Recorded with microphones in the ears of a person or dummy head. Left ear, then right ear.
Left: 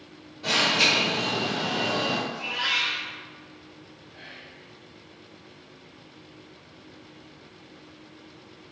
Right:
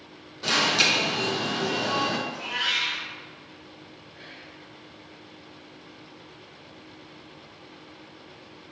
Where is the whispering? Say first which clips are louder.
Left 2 dB; 25° left (ahead or behind), 1.2 m.